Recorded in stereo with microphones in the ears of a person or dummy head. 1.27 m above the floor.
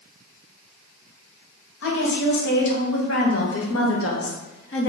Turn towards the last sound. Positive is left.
turn(degrees=55)  # may be behind; listen again after turning